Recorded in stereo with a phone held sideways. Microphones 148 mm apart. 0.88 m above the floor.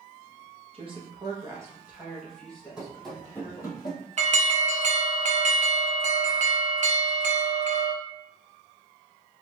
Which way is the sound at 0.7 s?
40° right (ahead or behind).